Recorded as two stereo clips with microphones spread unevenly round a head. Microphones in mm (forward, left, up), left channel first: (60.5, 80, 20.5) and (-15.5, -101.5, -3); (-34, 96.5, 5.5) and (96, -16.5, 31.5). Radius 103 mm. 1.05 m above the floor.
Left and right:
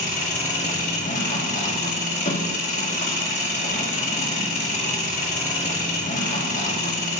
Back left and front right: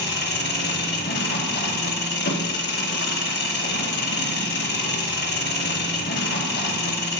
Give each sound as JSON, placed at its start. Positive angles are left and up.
{"t": 0.0, "sound": "an engine running", "azimuth_deg": 125, "distance_m": 1.9}